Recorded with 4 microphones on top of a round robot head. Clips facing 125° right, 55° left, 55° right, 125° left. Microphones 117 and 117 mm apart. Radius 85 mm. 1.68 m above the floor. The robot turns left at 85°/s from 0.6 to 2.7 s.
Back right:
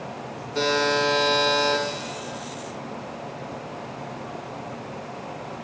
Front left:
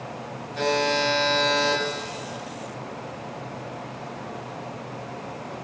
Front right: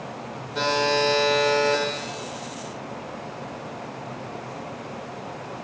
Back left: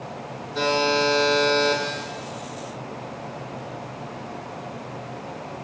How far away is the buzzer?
About 5 m.